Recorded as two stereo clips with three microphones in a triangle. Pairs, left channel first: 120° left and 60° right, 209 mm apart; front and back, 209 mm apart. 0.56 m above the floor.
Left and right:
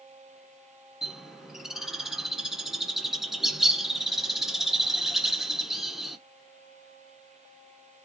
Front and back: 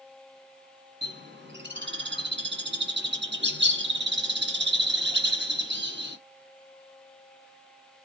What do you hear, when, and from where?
1.0 s a bird: 150° right, 1.4 m